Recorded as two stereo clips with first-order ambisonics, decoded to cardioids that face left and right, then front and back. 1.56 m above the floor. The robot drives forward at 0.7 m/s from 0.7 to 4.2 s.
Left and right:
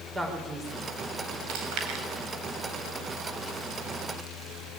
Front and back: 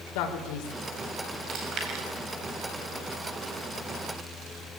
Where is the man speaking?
10° right, 5 m.